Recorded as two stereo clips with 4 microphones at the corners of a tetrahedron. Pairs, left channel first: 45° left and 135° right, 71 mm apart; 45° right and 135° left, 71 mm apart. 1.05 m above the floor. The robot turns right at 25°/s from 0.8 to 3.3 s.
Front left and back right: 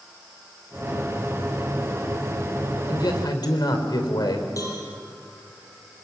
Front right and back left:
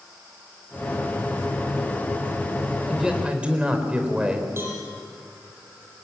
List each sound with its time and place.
2.9 s a man speaking: 50° left, 4 m; by 4.5 s 60° left, 4 m
4.6 s a cowbell: 80° left, 7 m